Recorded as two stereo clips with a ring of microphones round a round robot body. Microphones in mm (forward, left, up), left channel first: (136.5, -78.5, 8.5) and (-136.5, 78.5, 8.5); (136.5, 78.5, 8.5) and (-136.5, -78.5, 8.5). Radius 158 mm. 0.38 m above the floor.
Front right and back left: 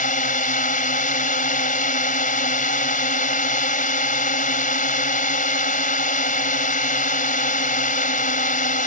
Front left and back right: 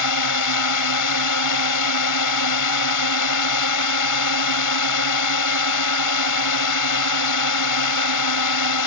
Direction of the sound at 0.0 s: 30° left.